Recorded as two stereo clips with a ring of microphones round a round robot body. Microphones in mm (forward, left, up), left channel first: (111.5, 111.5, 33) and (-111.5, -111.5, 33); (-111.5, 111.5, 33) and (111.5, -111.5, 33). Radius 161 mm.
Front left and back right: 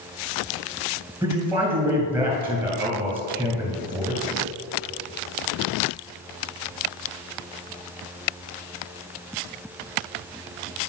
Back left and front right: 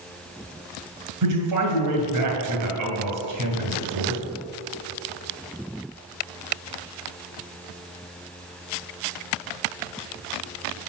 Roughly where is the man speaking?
Ahead right.